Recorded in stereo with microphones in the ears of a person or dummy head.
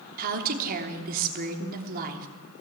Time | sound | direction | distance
0.2 | a woman speaking | 45° right (ahead or behind) | 3 m